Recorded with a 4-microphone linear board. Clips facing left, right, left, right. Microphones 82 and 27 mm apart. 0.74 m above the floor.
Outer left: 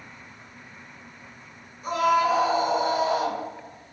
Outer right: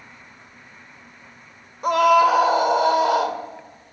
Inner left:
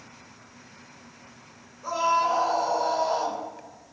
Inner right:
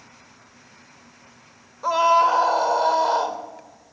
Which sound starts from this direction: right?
A scream, at 1.8 s.